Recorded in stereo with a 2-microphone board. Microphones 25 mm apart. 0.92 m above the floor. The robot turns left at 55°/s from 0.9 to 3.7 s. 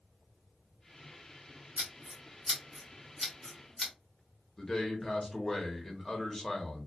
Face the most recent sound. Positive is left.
turn(degrees=25)  # may be behind; listen again after turning